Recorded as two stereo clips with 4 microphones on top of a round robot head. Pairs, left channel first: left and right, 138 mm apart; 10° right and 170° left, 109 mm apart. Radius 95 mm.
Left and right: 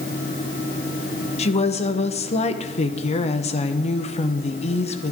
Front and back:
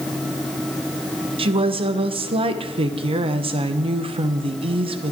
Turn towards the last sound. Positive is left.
turn(degrees=130)